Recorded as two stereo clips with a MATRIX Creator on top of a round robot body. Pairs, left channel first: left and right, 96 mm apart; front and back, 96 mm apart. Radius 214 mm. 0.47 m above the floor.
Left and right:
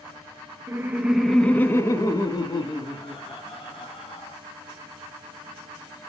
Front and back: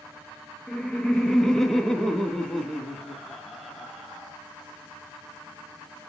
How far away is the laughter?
About 0.9 m.